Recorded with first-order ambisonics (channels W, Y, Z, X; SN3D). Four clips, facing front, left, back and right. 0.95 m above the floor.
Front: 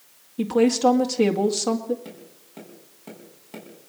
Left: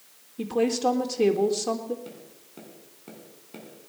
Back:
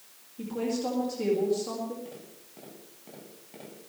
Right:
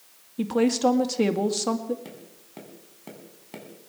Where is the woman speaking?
40° right, 2.0 m.